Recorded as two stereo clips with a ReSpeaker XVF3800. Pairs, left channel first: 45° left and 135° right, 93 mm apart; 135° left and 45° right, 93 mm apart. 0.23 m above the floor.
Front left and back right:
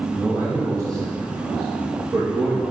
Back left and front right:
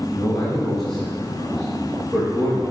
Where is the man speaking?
150° right, 0.9 m; by 2.6 s 135° right, 2.5 m.